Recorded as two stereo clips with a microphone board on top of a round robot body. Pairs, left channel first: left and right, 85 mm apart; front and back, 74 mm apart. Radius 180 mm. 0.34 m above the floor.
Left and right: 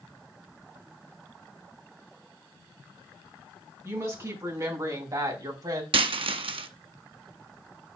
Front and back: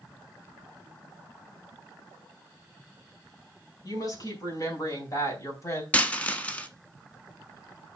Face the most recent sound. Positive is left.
turn(degrees=-75)